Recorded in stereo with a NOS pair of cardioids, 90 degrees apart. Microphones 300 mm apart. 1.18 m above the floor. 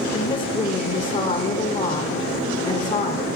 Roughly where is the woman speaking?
Ahead left.